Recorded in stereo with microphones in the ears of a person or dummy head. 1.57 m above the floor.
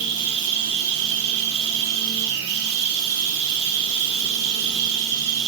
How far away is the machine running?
About 0.9 m.